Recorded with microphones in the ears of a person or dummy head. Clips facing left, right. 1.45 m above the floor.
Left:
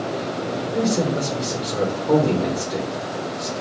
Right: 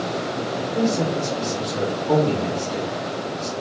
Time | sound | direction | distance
0.7 | a man speaking | 55° left (ahead or behind) | 1.1 m